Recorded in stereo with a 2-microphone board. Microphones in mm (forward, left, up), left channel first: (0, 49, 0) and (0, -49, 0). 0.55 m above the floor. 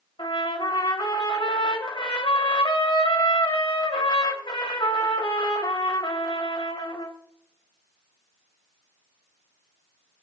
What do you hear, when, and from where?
0.2 s a trumpet: 60° left (ahead or behind), 3.5 m